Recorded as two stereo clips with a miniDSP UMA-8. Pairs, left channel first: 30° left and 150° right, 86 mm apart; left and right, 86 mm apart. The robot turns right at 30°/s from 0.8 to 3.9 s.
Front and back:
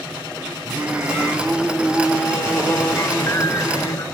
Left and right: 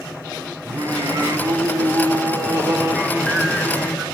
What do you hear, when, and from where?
0.7 s singing: 90° right, 1.2 m; by 4.0 s straight ahead, 1.2 m